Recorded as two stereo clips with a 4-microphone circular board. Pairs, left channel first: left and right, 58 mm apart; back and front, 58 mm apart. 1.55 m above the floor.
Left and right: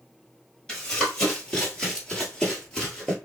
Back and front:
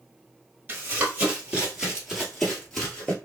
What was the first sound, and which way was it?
Running footsteps, 30° left.